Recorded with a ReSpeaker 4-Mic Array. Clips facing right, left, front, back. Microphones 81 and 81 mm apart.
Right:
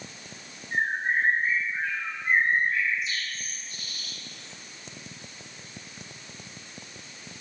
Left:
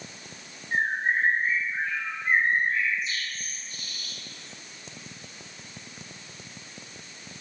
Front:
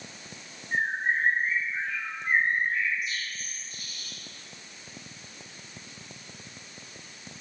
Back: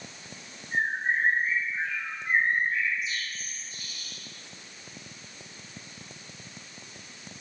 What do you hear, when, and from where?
0.7 s a bird: 35° left, 2.5 m